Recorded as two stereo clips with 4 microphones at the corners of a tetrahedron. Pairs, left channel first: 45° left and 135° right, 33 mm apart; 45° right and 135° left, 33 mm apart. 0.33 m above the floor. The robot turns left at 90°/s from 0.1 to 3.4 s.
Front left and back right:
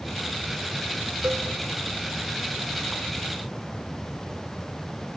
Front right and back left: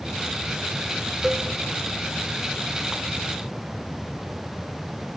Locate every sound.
1.2 s a cowbell: 140° right, 0.7 m; by 1.5 s 160° right, 0.7 m